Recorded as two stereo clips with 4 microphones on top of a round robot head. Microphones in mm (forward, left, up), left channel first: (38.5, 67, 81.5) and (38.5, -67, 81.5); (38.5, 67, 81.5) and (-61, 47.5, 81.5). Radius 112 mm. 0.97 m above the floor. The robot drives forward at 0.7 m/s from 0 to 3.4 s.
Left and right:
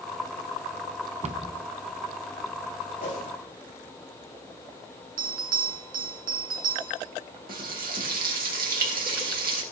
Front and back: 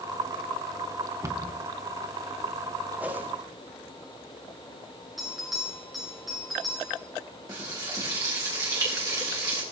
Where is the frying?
105° right, 3.5 m.